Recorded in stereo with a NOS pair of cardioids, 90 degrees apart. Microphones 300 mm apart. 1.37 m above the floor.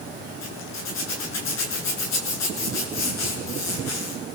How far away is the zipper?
About 8.5 m.